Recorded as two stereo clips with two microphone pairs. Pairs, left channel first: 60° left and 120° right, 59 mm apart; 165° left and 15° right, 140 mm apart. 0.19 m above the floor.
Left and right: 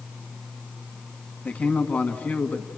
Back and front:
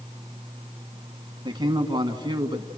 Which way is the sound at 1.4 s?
15° left.